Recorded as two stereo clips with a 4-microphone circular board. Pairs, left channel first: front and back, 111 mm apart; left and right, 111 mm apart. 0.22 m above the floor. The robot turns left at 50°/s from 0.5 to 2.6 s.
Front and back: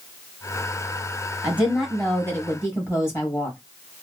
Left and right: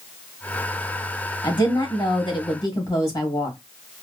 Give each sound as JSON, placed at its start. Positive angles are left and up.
{"t": 1.4, "sound": "a woman speaking", "azimuth_deg": 110, "distance_m": 1.9}